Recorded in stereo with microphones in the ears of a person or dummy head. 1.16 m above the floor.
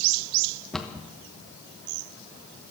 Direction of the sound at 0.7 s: Centre (ahead or behind).